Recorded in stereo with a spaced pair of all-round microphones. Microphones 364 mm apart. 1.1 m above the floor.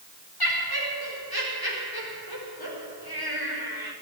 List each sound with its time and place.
0.4 s laughter: 85° left, 5.5 m